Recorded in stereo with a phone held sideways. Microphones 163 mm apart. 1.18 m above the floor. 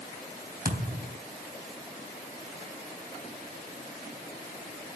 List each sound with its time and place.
0.7 s a thud: 70° right (ahead or behind), 3.5 m